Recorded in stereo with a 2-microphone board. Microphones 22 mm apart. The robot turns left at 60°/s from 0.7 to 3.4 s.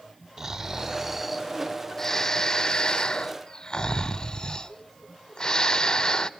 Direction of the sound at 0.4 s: 20° right (ahead or behind).